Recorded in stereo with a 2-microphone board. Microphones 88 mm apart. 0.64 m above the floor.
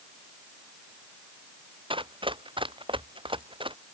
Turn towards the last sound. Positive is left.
turn(degrees=-85)